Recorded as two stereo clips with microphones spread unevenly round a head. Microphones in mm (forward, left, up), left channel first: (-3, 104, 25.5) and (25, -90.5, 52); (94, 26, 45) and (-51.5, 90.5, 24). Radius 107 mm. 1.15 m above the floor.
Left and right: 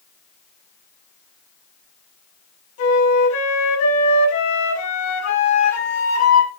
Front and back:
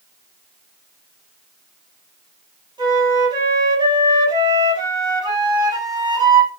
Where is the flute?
95° left, 6.5 m.